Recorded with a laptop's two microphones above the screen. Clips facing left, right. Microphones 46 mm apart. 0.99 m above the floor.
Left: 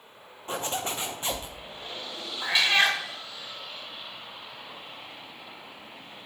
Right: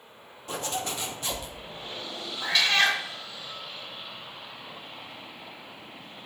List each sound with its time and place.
0.5 s a zipper: 30° left (ahead or behind), 0.6 m
2.4 s a cat meowing: 20° left (ahead or behind), 0.7 m